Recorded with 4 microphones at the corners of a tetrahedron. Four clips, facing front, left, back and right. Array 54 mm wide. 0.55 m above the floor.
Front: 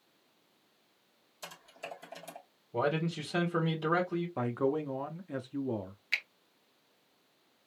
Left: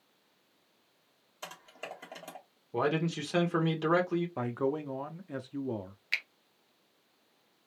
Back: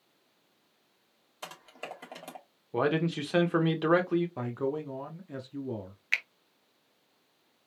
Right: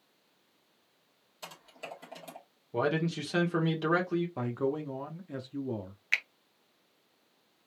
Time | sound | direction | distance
1.4 | typing on a keyboard | 160° left | 2.5 m
2.7 | a man speaking | 175° left | 1.5 m
4.4 | a man speaking | 40° left | 0.6 m
6.1 | a finger snap | 140° right | 0.6 m